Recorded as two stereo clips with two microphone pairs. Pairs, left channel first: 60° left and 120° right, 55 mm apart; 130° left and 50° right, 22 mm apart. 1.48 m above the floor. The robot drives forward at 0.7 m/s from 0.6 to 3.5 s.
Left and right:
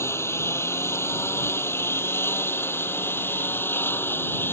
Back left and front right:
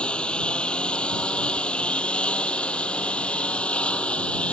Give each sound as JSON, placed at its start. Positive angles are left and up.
{"t": 0.0, "sound": "a lawn mower", "azimuth_deg": 100}